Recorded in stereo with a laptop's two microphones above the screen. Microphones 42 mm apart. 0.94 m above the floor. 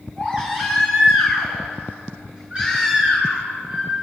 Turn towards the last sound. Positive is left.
turn(degrees=-25)  # may be behind; listen again after turning